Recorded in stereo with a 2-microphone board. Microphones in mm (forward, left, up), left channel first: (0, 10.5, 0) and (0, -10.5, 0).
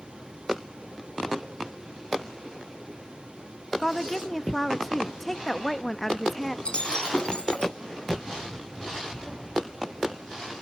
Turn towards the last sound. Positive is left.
turn(degrees=55)  # may be behind; listen again after turning